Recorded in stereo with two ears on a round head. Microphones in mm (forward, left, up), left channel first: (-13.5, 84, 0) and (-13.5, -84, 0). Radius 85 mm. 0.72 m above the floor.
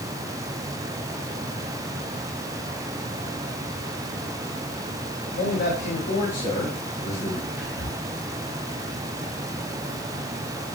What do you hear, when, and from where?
5.4 s a man speaking: 50° left (ahead or behind), 2.5 m; by 7.5 s 40° left (ahead or behind), 4 m
7.6 s whispering: 70° left (ahead or behind), 4.5 m